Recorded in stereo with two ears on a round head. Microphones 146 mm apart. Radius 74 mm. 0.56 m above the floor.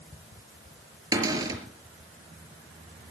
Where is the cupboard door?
20° right (ahead or behind), 5 m.